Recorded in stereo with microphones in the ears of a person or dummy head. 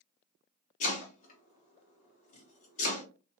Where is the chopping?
45° left (ahead or behind), 1.3 m.